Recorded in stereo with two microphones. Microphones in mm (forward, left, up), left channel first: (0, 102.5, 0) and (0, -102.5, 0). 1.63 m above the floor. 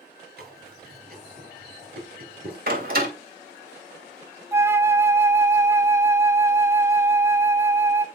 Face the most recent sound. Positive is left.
turn(degrees=-15)  # may be behind; listen again after turning